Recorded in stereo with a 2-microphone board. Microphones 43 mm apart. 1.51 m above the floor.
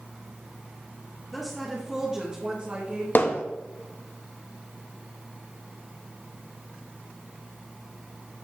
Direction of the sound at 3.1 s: 55° left (ahead or behind).